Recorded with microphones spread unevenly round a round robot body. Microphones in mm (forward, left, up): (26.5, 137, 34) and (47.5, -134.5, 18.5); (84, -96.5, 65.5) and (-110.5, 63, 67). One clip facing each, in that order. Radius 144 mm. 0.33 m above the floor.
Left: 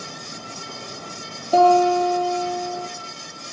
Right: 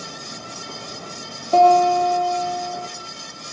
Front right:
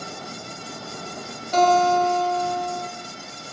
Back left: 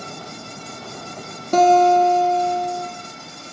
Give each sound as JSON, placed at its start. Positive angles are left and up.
{"t": 1.5, "sound": "a guitar", "azimuth_deg": 180, "distance_m": 5.0}